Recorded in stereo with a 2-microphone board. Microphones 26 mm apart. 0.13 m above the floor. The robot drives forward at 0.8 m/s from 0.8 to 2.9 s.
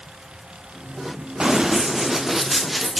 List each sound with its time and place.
1.4 s running footsteps: 35° right (ahead or behind), 1.7 m; by 3.0 s centre (ahead or behind), 2 m